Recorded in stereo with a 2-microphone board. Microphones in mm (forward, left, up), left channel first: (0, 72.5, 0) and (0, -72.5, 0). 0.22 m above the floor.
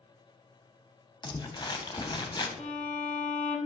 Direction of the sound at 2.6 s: 45° left (ahead or behind).